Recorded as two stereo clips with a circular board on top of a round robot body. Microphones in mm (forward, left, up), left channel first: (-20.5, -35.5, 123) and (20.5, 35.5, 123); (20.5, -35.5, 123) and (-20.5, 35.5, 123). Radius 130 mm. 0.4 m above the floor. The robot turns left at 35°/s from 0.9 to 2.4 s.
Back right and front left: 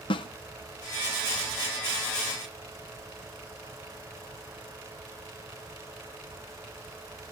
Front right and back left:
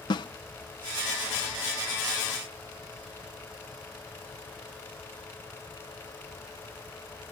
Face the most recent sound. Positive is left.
turn(degrees=-150)